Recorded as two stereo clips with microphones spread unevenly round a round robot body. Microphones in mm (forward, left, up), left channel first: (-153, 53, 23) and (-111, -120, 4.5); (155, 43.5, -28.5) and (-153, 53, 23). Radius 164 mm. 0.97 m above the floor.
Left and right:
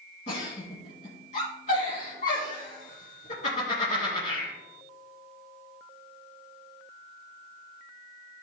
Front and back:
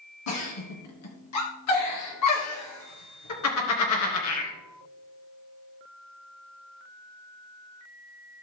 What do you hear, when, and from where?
0.3 s a giggle: 35° left, 2.5 m